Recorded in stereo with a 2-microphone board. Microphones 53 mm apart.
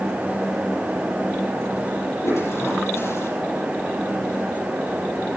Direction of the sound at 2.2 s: 55° left (ahead or behind).